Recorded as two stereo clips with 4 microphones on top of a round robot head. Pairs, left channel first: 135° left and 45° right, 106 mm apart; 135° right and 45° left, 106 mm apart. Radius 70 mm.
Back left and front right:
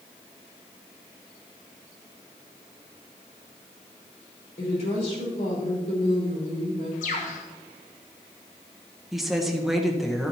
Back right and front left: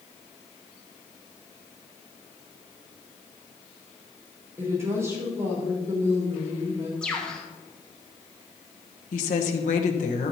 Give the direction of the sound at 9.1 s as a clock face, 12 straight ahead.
5 o'clock.